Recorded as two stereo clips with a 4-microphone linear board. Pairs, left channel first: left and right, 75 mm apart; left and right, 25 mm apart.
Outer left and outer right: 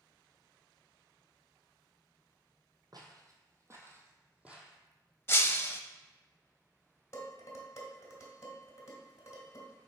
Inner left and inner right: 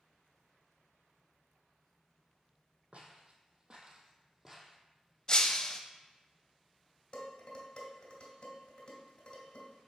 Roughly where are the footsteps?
Right.